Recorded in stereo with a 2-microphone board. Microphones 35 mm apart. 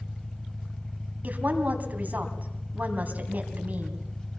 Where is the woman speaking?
45° right (ahead or behind), 3 m.